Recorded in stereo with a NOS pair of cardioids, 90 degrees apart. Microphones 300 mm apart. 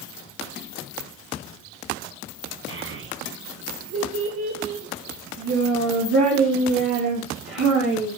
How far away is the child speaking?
About 1.5 m.